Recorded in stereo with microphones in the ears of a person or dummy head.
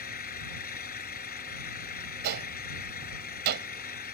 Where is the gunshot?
55° right (ahead or behind).